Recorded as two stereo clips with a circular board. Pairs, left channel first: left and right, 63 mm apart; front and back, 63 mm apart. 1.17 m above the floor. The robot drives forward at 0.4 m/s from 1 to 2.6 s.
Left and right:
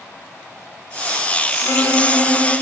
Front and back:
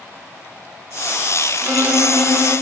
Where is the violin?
125° left, 0.5 m; by 2.5 s 145° left, 0.8 m.